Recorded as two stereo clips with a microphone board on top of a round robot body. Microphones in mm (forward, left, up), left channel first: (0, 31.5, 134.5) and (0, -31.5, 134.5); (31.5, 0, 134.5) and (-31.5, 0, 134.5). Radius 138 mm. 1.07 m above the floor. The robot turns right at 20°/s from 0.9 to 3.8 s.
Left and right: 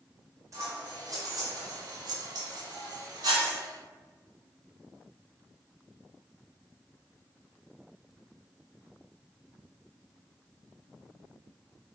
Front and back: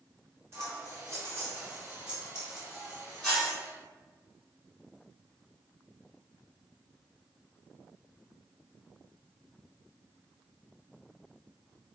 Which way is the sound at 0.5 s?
130° right.